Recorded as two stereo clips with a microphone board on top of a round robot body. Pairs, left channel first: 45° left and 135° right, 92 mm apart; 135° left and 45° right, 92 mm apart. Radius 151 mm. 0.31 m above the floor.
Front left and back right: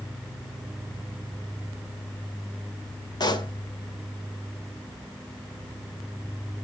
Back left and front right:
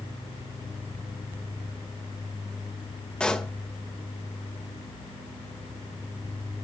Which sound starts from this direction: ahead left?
A pop, at 3.2 s.